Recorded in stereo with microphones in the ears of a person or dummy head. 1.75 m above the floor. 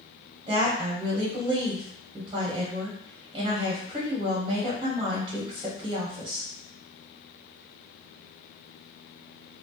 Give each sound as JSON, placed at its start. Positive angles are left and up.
{"t": 0.5, "sound": "a woman speaking", "side_deg": -30, "distance_m": 0.9}